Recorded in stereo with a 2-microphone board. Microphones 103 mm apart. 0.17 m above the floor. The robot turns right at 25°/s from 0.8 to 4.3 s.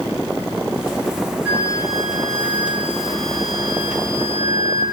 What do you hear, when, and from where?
1.4 s a flute: 15° right, 9 m; by 4.8 s 55° left, 9 m